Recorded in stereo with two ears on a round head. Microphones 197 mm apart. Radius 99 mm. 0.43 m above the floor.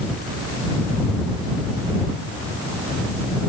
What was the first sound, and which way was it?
Only background noise.